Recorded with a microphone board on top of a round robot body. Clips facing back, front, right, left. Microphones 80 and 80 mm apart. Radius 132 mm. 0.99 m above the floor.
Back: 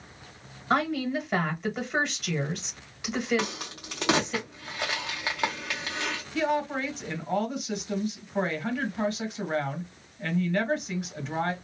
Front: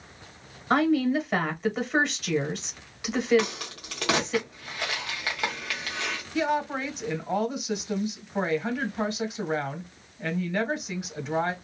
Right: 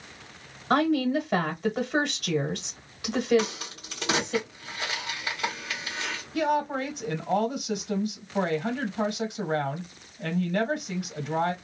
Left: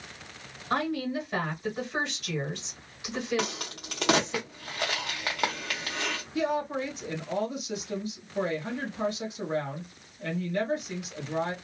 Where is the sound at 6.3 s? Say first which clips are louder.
Front 1 dB, right 3 dB; 85° right, 1.3 m.